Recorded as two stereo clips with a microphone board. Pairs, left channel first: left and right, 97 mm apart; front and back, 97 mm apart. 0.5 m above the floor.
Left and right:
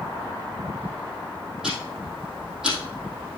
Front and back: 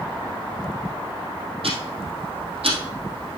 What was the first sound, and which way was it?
Ticking, 175° right.